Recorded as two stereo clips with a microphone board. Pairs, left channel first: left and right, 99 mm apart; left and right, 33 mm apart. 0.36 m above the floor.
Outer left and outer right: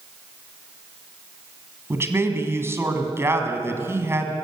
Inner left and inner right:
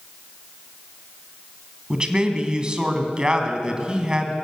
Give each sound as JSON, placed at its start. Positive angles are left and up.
{"t": 1.9, "sound": "a man speaking", "side_deg": -25, "distance_m": 2.5}